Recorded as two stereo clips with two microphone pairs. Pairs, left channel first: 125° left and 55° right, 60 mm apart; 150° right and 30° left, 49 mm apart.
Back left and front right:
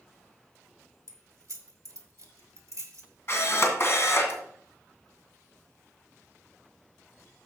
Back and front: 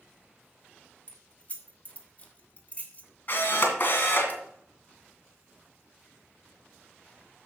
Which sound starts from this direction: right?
Keys jangling, at 1.1 s.